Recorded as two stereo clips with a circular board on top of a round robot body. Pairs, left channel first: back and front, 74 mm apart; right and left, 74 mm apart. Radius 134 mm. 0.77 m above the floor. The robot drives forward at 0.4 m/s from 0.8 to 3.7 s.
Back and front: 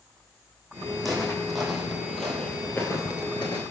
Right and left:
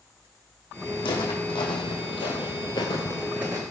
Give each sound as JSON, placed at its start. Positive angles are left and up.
{"t": 1.0, "sound": "footsteps", "azimuth_deg": -90, "distance_m": 3.0}